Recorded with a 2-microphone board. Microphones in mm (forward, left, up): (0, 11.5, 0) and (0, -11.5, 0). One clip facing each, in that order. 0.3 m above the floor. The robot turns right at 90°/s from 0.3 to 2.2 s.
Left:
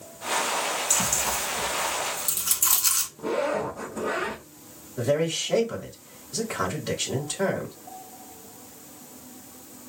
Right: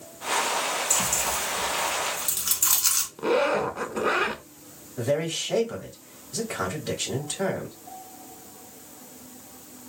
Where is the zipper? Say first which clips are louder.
Right 5 dB; 65° right (ahead or behind), 0.5 m.